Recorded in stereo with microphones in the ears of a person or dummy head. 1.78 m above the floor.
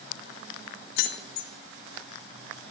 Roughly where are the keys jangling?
Left.